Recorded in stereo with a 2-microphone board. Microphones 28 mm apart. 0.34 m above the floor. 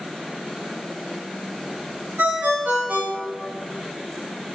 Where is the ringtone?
55° right (ahead or behind), 3 m.